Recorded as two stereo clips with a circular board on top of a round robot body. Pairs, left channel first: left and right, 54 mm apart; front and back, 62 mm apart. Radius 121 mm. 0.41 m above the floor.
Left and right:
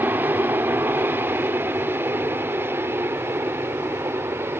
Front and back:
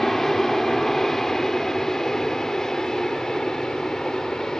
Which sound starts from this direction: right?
An aircraft, at 0.0 s.